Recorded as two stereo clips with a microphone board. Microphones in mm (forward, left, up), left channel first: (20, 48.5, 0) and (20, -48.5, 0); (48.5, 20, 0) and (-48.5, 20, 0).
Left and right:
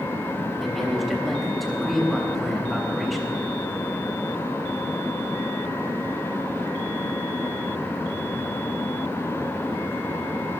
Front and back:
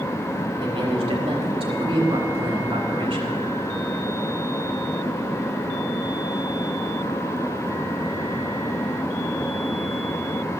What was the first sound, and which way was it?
A man speaking, straight behind.